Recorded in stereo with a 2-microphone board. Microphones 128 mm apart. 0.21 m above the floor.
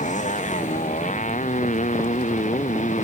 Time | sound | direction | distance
0.0 | a motorcycle | 70° left (ahead or behind) | ?